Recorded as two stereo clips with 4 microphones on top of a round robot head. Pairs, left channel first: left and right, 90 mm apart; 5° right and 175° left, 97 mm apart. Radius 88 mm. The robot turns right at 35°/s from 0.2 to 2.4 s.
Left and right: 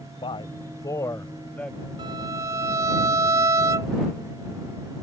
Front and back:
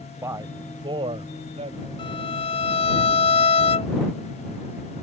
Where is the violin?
45° right; by 3.9 s 30° right.